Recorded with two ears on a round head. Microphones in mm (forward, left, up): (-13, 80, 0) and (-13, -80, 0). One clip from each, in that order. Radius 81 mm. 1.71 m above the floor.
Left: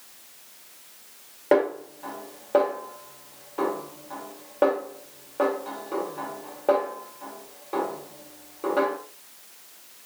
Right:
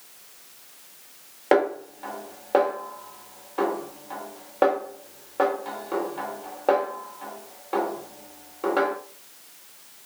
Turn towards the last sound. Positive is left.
turn(degrees=-30)  # may be behind; listen again after turning